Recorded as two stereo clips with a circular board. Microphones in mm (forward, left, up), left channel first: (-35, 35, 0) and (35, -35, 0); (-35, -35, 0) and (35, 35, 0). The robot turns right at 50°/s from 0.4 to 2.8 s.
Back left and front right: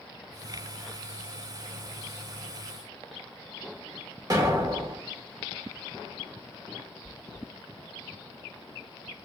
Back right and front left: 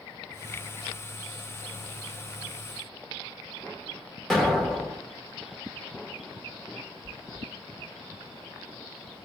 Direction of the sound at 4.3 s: 45° right.